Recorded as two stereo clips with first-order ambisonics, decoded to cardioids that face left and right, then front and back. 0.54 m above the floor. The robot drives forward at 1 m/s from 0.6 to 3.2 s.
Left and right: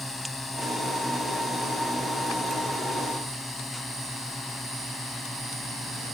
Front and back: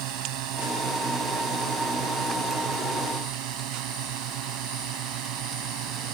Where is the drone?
175° left.